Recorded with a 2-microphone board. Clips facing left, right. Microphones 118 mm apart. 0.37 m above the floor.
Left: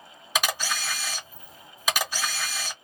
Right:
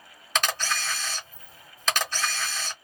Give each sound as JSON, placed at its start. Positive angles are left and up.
{"t": 0.3, "sound": "a camera shutter", "side_deg": 10, "distance_m": 1.2}